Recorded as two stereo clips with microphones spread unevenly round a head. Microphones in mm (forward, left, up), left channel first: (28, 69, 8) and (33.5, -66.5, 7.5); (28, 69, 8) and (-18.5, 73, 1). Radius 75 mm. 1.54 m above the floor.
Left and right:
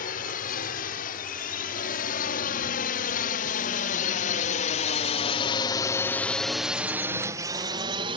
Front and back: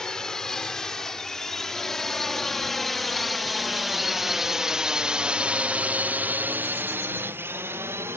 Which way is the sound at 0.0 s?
75° left.